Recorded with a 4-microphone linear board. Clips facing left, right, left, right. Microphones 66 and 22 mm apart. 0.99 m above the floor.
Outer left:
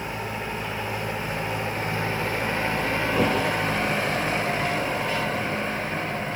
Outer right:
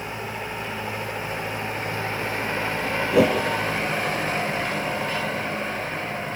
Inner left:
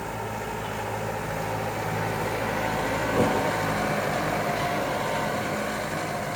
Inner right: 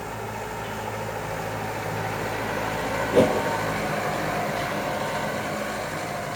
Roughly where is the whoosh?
Right.